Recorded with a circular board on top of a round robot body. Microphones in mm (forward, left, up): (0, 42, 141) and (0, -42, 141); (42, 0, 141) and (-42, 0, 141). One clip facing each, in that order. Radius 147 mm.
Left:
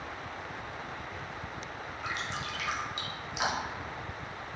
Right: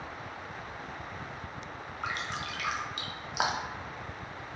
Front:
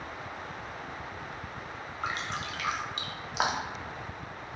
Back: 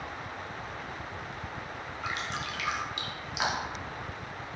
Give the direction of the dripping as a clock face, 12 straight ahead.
2 o'clock.